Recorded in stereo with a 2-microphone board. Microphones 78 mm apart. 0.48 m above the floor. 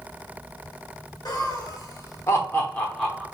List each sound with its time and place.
1.2 s laughter: 60° left (ahead or behind), 1.5 m; by 3.2 s 5° right (ahead or behind), 0.9 m